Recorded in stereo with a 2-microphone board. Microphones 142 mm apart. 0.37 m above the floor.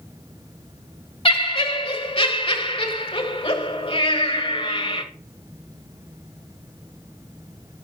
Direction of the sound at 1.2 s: 40° left (ahead or behind).